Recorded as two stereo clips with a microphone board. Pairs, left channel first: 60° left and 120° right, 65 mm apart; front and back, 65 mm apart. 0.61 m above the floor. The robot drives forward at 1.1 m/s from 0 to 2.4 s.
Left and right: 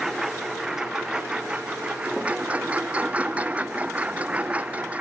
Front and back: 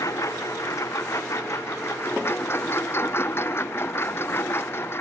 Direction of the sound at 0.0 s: 35° right.